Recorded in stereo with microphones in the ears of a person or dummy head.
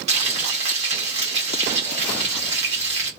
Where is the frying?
30° right (ahead or behind), 1.4 m.